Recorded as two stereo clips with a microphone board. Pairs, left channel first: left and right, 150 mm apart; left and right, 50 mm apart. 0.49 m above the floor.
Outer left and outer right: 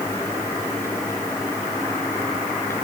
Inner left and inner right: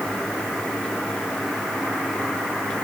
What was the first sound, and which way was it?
Only background noise.